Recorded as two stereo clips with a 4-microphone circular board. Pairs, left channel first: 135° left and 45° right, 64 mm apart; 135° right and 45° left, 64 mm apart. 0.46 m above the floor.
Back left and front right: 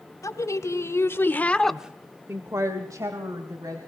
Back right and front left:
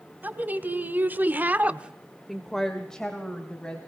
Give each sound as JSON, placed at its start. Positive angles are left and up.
{"t": 0.2, "sound": "a woman speaking", "azimuth_deg": 105, "distance_m": 2.5}